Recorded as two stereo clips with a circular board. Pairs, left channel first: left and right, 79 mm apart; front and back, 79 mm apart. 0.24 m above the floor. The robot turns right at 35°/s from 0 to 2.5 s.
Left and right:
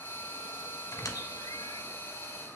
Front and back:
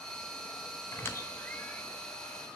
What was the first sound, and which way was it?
A squeak, 45° left.